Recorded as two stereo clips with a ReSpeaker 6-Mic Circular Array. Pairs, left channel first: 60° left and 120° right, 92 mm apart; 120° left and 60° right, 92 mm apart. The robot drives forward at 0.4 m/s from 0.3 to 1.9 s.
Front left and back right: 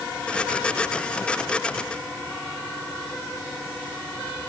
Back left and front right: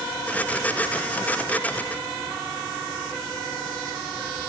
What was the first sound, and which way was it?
Only background noise.